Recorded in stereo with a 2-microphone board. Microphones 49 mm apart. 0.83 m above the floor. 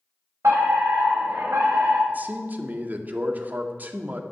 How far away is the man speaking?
About 2.0 m.